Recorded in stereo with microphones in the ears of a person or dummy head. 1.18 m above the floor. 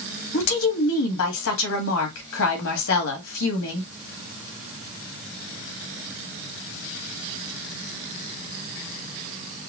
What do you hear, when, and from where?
0.3 s a woman speaking: 70° left (ahead or behind), 1.7 m